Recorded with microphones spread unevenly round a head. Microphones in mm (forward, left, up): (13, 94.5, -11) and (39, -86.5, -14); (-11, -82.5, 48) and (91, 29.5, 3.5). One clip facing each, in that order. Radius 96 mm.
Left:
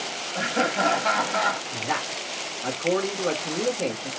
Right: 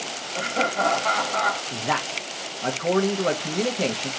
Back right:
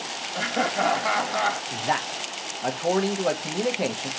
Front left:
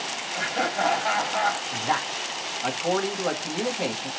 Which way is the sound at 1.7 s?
70° right.